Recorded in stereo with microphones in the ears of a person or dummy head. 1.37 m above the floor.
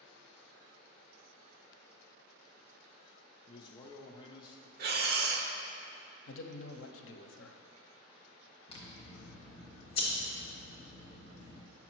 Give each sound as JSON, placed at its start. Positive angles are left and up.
{"t": 3.5, "sound": "a man speaking", "side_deg": 25, "distance_m": 0.6}
{"t": 4.8, "sound": "breathing", "side_deg": -50, "distance_m": 0.7}
{"t": 6.3, "sound": "a man speaking", "side_deg": 65, "distance_m": 0.6}
{"t": 8.7, "sound": "scissors", "side_deg": 30, "distance_m": 1.2}